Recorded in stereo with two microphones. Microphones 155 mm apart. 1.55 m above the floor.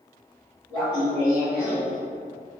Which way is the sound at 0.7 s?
20° left (ahead or behind).